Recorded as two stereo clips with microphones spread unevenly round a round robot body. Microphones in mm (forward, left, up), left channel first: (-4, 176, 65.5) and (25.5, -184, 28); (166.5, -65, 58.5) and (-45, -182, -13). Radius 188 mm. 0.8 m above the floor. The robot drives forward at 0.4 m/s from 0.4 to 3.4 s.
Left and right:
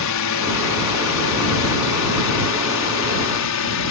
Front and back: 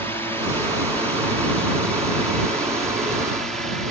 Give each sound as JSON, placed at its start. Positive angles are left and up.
{"t": 0.0, "sound": "a drone", "azimuth_deg": 125}